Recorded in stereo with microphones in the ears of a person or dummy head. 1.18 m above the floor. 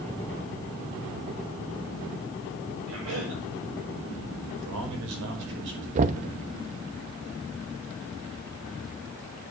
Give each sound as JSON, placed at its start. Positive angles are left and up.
{"t": 2.9, "sound": "a cough", "side_deg": -75, "distance_m": 5.5}
{"t": 4.6, "sound": "a man speaking", "side_deg": -65, "distance_m": 4.5}
{"t": 6.0, "sound": "knocking", "side_deg": -40, "distance_m": 0.7}